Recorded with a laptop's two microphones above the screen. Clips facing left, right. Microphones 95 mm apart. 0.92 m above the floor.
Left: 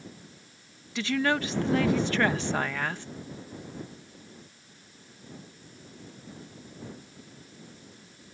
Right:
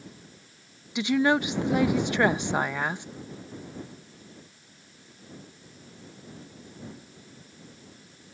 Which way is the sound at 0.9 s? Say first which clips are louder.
Right 4 dB; 15° right (ahead or behind).